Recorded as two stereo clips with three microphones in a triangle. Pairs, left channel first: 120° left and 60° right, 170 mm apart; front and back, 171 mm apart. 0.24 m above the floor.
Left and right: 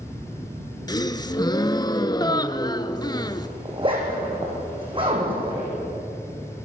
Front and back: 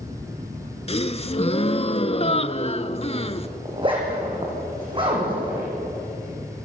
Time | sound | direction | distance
0.9 | a gasp | 55° left | 0.8 m
3.6 | a zipper | 120° right | 6.5 m